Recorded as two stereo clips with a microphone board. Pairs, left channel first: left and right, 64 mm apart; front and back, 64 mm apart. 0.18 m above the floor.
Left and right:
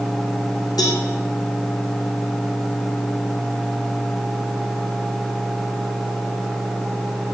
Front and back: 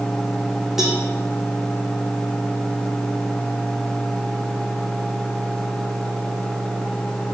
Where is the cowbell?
95° left, 2.5 m.